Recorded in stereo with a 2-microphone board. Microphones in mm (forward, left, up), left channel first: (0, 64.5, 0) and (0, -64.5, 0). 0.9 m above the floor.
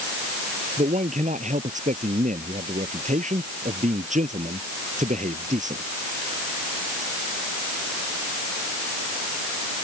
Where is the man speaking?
70° right (ahead or behind).